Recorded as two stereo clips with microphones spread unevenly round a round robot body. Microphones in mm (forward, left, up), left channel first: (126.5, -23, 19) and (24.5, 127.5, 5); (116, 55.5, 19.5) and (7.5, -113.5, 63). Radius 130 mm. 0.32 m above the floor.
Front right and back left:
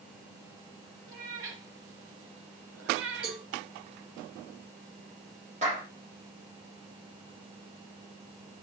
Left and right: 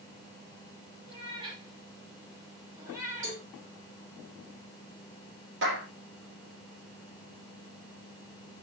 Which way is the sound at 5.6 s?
170° right.